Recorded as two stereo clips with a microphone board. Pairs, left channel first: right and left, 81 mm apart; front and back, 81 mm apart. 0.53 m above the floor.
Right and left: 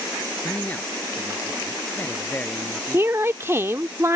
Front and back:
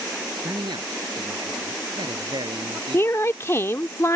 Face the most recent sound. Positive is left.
turn(degrees=40)